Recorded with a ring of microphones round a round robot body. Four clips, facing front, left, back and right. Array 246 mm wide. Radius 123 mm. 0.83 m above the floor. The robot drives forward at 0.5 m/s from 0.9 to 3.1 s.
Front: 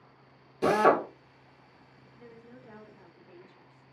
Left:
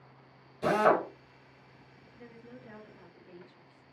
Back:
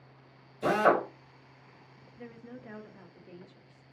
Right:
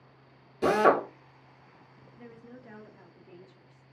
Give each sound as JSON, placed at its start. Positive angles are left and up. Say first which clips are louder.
{"t": 0.6, "sound": "a drill", "louder": "right 2 dB, front 2 dB", "azimuth_deg": -45, "distance_m": 1.1}
{"t": 2.2, "sound": "a woman speaking", "louder": "right 1 dB, back 5 dB", "azimuth_deg": -160, "distance_m": 0.5}